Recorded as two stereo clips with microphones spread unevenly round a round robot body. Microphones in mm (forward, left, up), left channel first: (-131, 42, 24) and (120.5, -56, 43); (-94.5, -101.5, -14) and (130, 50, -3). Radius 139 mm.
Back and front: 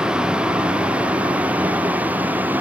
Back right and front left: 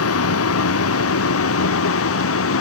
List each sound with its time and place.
0.0 s a vehicle: 110° right; by 2.6 s 105° right